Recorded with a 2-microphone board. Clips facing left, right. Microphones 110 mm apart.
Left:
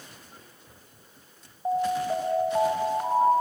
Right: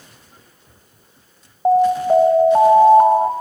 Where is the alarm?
55° right (ahead or behind), 1.8 m.